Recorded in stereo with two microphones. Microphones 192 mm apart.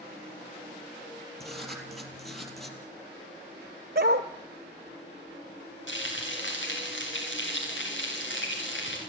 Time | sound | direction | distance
1.4 | writing | centre (ahead or behind) | 3 m
4.0 | a dog barking | 55° right (ahead or behind) | 1.4 m
5.9 | frying | 80° left | 8 m